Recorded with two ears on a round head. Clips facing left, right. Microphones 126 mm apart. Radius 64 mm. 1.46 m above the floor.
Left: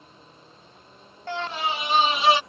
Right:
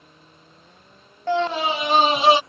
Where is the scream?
70° right (ahead or behind); by 2.4 s 15° right (ahead or behind).